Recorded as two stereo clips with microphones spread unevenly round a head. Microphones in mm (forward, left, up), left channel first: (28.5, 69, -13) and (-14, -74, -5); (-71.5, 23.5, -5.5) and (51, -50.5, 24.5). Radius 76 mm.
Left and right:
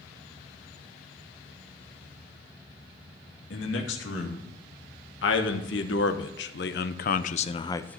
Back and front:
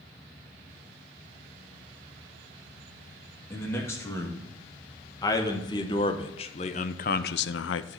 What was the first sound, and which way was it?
A man speaking, 70° left.